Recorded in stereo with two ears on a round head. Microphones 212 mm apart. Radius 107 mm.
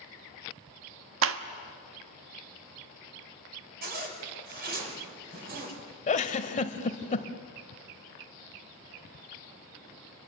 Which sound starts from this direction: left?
A giggle, at 6.1 s.